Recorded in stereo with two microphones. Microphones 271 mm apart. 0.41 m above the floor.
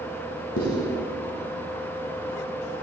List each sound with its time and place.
0.6 s writing: 60° left (ahead or behind), 1.6 m